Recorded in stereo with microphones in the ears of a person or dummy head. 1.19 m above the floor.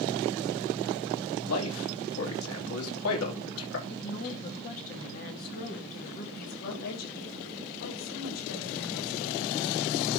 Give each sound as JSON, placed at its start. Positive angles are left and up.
{"t": 1.4, "sound": "a man speaking", "side_deg": 75, "distance_m": 3.0}
{"t": 3.9, "sound": "a woman speaking", "side_deg": 45, "distance_m": 2.5}
{"t": 6.3, "sound": "a woman speaking", "side_deg": 85, "distance_m": 7.0}